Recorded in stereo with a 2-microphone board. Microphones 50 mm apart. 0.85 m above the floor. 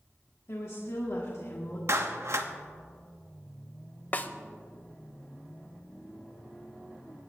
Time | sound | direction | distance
0.5 | a woman speaking | 65° left (ahead or behind) | 1.8 m
1.9 | a clap | 65° right (ahead or behind) | 0.9 m
4.1 | a snare drum | 35° left (ahead or behind) | 0.7 m